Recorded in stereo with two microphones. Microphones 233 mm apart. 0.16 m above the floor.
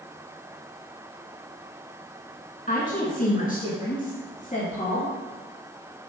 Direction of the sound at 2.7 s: 35° left (ahead or behind).